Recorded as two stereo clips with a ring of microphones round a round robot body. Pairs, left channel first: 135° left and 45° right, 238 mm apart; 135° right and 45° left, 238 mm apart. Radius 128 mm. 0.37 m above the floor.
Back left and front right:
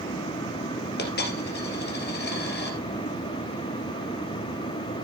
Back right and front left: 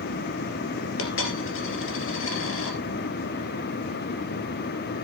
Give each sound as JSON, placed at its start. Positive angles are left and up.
{"t": 1.0, "sound": "a dropped coin", "azimuth_deg": -175, "distance_m": 2.5}